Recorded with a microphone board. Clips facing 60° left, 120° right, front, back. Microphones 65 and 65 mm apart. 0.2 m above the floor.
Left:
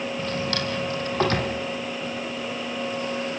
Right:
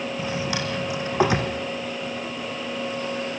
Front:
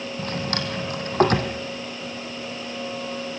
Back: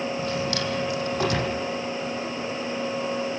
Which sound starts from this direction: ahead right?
A drawer, at 0.2 s.